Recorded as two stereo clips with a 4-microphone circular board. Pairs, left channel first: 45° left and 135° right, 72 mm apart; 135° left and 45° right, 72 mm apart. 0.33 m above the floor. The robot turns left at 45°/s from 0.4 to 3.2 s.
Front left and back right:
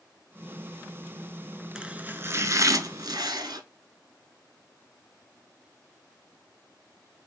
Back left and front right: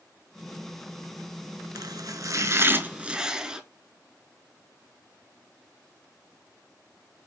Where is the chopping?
55° right, 0.6 m; by 3.6 s 120° right, 0.6 m.